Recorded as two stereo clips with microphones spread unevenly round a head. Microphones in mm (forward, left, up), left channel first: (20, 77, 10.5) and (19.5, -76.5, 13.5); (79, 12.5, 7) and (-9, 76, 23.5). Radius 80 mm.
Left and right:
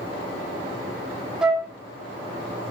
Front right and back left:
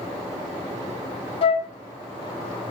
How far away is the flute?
About 1.1 m.